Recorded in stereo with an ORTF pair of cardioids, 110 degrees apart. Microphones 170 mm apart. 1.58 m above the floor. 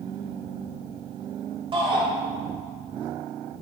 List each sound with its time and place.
1.7 s a shout: 30° right, 4.5 m